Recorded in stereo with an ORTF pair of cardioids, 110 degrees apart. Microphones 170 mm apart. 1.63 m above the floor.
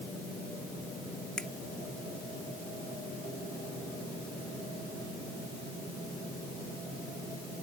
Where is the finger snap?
5° left.